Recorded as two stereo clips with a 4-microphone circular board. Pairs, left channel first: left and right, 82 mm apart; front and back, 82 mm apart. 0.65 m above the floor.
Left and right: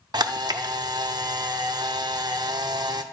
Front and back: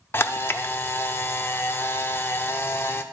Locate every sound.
0.1 s a camera shutter: 60° right, 0.6 m